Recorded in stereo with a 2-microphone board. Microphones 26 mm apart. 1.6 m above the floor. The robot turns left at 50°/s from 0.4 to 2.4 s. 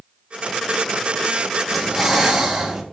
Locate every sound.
1.7 s breathing: straight ahead, 1.5 m; by 2.8 s 35° right, 1.5 m